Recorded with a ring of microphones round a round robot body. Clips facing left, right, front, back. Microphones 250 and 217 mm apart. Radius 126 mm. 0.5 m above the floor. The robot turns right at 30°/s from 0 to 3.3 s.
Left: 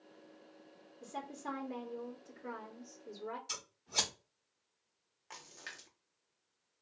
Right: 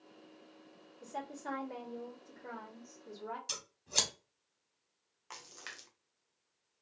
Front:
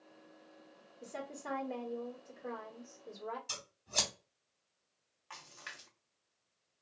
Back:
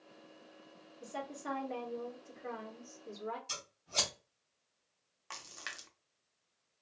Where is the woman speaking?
125° left, 1.3 m; by 3.4 s 165° right, 1.3 m.